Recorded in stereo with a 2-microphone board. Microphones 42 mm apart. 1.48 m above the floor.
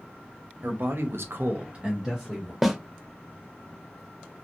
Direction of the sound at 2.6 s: 5° right (ahead or behind).